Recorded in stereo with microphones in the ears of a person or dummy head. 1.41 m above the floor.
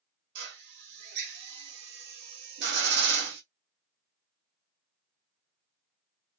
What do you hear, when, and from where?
0.3 s a drill: 60° right (ahead or behind), 0.5 m